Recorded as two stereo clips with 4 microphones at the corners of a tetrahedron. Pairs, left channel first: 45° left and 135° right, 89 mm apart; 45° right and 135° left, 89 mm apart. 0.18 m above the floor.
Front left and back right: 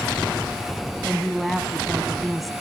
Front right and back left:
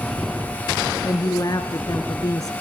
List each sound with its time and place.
1.0 s a woman speaking: 45° right, 1.6 m